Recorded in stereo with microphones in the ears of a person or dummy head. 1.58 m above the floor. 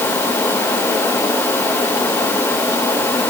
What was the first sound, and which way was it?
Only background noise.